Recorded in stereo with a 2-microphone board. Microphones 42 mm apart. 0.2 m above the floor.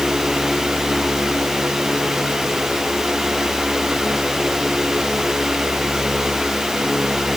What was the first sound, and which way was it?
Only background noise.